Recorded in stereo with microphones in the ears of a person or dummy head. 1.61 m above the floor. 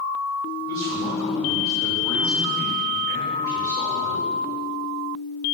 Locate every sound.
0.7 s a man speaking: 15° left (ahead or behind), 6 m